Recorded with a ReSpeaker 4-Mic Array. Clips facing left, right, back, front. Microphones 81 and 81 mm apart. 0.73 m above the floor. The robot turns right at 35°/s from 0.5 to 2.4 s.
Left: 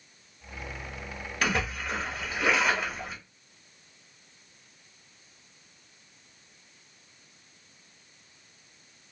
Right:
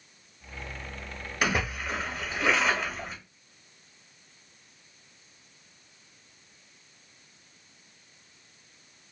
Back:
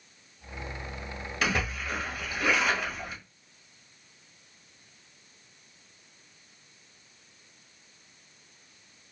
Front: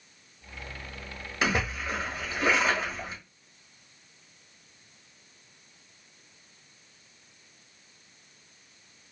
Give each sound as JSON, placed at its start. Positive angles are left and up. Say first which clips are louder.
{"t": 1.4, "sound": "a splash", "louder": "right 1 dB, front 2 dB", "azimuth_deg": -30, "distance_m": 1.2}